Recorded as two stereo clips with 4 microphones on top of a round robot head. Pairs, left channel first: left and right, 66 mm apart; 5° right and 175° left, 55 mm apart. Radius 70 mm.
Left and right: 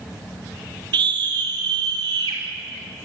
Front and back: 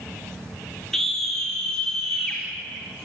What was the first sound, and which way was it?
A scream, 90° right.